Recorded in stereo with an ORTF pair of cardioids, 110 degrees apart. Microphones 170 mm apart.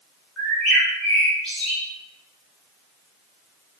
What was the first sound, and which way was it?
A bird, 5° left.